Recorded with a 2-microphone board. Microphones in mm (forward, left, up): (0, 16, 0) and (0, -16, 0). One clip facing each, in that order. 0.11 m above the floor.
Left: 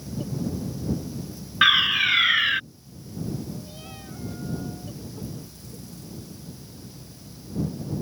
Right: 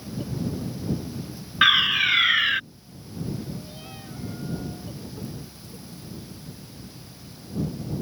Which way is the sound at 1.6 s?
Centre (ahead or behind).